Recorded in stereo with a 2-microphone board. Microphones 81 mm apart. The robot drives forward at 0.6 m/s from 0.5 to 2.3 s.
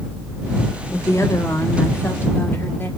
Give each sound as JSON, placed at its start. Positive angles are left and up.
{"t": 0.9, "sound": "a woman speaking", "side_deg": 40, "distance_m": 1.4}